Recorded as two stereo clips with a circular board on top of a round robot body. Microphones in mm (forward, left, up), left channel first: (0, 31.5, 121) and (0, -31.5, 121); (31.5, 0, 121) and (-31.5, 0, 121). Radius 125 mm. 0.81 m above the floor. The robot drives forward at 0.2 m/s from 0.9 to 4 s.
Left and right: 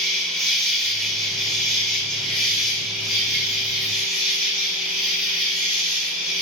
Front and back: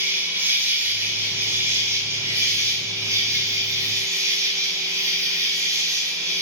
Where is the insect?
175° left, 1.0 m; by 6.4 s straight behind, 1.4 m.